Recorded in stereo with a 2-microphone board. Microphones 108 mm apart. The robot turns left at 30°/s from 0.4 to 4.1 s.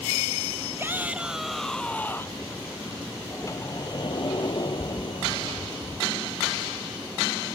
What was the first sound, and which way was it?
A shout, 155° right.